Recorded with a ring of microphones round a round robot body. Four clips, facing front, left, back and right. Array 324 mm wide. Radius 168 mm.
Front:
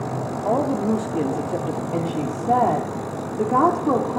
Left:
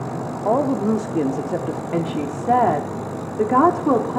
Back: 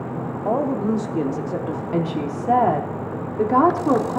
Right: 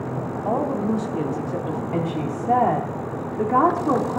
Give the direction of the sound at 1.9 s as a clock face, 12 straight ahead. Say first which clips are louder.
Left 3 dB, back 3 dB; 8 o'clock.